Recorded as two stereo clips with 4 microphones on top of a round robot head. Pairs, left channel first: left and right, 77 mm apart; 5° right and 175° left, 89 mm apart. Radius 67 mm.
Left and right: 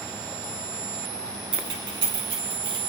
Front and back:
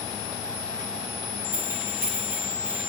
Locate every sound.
1.5 s keys jangling: 115° right, 3.5 m; by 2.8 s 110° right, 4.5 m